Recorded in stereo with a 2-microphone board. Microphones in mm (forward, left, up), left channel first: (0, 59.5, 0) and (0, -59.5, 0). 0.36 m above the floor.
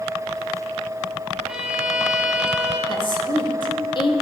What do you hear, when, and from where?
1.5 s a violin: 5° right (ahead or behind), 2.5 m
2.9 s a woman speaking: 40° left (ahead or behind), 1.5 m